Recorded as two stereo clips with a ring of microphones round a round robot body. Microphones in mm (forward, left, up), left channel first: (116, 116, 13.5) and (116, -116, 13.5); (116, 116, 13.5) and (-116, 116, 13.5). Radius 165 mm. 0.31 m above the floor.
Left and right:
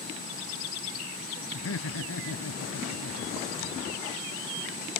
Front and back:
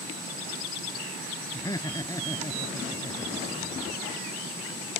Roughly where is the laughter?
Left.